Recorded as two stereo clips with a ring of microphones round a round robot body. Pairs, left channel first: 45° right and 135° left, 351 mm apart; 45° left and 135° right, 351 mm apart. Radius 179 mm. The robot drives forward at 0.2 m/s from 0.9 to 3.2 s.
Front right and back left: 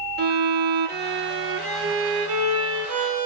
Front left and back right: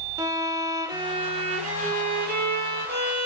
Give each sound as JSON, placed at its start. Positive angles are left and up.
{"t": 0.2, "sound": "a violin", "azimuth_deg": 155, "distance_m": 0.6}